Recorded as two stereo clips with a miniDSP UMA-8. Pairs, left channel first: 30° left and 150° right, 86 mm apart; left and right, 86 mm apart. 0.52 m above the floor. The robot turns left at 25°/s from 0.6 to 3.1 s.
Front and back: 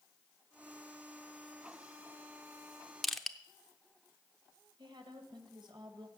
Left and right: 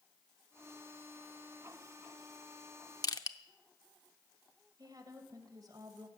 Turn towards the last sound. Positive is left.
turn(degrees=-135)